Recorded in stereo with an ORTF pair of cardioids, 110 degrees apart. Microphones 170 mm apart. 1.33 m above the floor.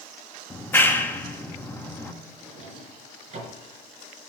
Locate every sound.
0.5 s a clap: 15° left, 1.4 m
2.4 s a drawer: 40° right, 5.5 m